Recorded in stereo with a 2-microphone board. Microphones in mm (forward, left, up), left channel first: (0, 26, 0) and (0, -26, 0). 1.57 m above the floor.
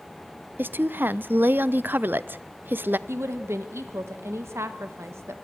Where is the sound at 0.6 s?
45° right (ahead or behind), 0.6 m.